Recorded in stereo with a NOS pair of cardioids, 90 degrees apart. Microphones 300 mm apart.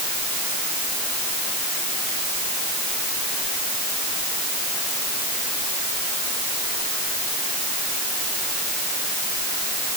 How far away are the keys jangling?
I don't hear keys jangling.